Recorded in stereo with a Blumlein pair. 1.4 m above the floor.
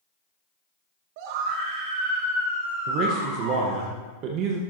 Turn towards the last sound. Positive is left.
turn(degrees=-35)